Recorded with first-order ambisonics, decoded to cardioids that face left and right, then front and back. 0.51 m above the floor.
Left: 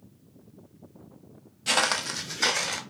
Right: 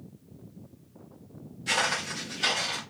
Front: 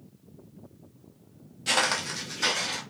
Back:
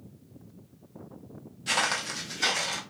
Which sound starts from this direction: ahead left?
Footsteps, at 1.7 s.